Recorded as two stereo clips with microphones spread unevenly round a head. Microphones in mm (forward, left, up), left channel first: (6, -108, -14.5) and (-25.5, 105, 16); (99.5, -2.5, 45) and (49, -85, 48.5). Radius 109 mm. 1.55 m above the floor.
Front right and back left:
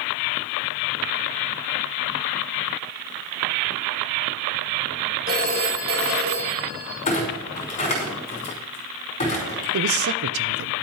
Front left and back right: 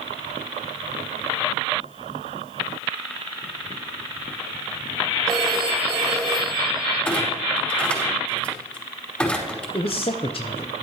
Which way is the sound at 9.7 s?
115° left.